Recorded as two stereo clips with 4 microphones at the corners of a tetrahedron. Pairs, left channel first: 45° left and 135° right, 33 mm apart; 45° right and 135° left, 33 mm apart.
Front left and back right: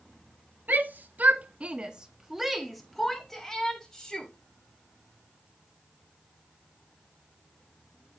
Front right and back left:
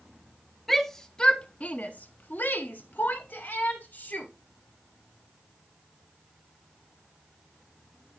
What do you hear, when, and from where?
0.7 s a shout: 125° right, 1.5 m; by 4.3 s 25° right, 3 m